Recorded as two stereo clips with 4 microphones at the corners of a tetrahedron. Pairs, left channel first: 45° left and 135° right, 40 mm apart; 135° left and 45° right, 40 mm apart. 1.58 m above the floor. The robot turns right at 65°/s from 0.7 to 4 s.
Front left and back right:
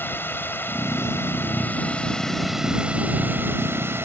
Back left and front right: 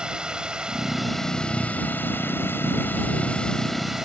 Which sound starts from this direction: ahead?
A drone, at 0.0 s.